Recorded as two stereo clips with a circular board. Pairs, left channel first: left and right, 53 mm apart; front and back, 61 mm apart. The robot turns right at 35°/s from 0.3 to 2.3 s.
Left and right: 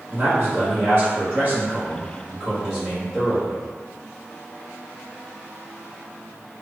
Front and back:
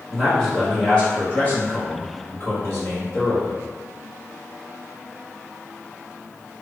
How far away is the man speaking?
About 1.3 m.